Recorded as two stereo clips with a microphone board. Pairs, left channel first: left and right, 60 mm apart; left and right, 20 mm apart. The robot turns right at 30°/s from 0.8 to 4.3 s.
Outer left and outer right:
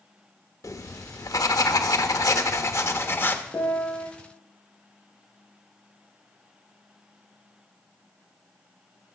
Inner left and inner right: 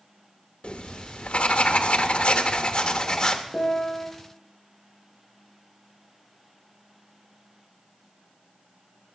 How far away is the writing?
About 0.8 m.